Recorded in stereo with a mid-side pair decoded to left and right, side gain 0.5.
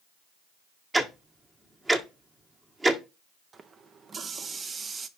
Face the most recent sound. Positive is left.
turn(degrees=-40)